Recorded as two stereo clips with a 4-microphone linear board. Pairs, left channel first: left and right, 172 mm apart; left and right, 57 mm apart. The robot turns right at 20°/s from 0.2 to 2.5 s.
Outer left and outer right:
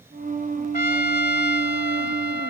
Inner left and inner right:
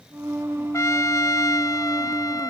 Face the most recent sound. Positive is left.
turn(degrees=95)